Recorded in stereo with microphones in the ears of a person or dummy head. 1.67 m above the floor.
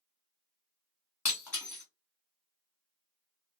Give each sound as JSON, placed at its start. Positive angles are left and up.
{"t": 1.2, "sound": "breaking glass", "side_deg": 10, "distance_m": 1.2}